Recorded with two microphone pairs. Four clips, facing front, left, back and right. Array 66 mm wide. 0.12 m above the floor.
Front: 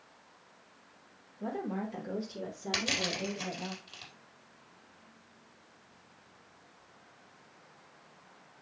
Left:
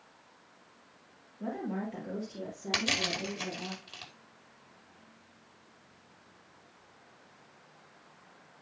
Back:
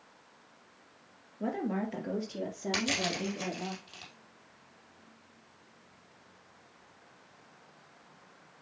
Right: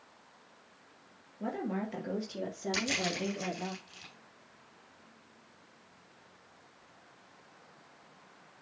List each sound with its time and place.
1.4 s a woman speaking: 170° right, 3 m; by 3.7 s 150° right, 4.5 m
2.7 s crushing: 90° left, 4.5 m